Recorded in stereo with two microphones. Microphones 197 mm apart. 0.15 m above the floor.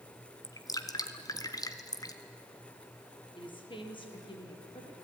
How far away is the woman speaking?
About 5 m.